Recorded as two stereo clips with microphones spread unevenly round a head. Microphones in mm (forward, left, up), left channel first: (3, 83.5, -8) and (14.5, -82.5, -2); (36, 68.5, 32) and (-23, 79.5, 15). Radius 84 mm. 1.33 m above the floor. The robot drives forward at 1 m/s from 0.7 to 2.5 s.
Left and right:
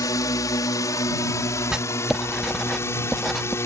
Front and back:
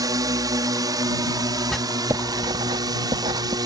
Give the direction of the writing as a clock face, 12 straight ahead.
12 o'clock.